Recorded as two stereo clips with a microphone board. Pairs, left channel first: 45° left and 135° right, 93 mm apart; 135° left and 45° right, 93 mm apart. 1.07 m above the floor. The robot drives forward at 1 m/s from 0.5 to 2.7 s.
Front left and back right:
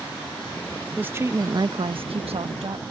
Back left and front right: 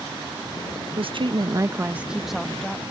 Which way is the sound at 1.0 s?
60° right.